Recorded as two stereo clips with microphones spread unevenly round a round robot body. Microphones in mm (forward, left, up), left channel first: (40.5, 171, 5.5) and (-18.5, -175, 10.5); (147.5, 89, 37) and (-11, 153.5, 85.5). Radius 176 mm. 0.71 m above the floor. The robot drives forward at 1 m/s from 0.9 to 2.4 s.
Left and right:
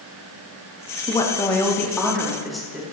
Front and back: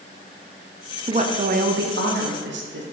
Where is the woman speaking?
130° left, 1.0 m; by 2.8 s 170° left, 1.9 m.